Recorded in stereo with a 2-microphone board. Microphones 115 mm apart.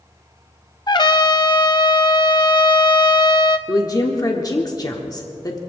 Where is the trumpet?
40° left (ahead or behind), 0.6 m.